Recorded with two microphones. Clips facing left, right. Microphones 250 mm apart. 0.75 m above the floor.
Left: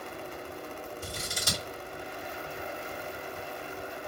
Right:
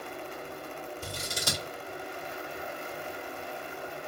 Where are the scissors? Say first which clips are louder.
Right 1 dB; 65° right (ahead or behind), 2.5 m.